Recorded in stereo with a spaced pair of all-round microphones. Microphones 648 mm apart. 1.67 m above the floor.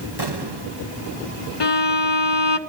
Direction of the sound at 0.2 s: 40° right (ahead or behind).